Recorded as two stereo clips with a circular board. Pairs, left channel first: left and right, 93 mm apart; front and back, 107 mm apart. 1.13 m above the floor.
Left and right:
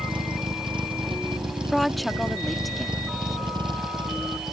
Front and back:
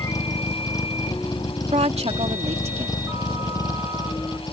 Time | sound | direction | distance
0.0 | a vehicle | 60° right | ?
1.6 | a woman speaking | straight behind | ?